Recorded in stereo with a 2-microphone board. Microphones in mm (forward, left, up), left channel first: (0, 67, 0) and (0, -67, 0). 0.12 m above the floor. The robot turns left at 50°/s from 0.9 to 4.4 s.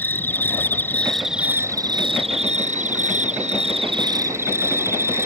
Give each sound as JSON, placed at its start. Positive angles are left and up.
{"t": 0.0, "sound": "an insect", "azimuth_deg": 15}